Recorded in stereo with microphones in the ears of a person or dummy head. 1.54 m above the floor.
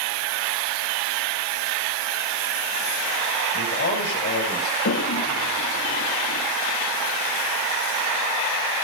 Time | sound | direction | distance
3.5 | a man speaking | 70° left (ahead or behind) | 7.5 m
4.8 | a toilet flushing | 55° left (ahead or behind) | 1.7 m